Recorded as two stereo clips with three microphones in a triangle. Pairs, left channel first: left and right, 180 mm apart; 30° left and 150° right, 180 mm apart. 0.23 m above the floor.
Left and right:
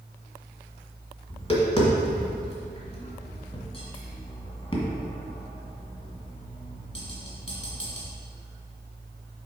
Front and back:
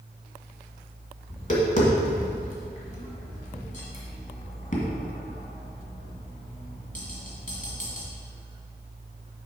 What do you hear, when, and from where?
1.3 s tapping: 45° left, 1.6 m